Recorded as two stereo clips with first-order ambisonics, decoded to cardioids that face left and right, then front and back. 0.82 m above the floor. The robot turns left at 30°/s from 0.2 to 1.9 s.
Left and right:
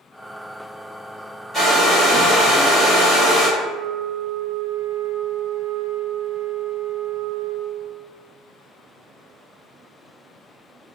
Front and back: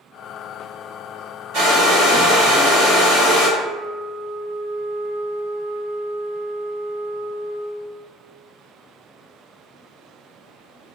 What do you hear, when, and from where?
1.5 s a hair dryer: 175° right, 1.4 m; by 3.5 s 175° left, 1.4 m
3.6 s a flute: 145° right, 0.5 m